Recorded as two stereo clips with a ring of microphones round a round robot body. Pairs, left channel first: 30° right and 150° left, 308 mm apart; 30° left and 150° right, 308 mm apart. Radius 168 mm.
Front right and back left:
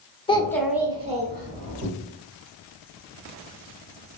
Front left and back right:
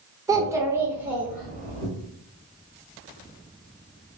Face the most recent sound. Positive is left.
turn(degrees=120)